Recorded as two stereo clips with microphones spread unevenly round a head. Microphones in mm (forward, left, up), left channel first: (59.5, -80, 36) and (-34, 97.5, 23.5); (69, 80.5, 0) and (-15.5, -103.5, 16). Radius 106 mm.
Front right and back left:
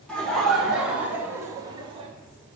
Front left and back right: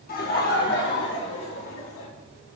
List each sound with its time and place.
0.1 s laughter: 25° left, 4.5 m; by 2.1 s 55° left, 3 m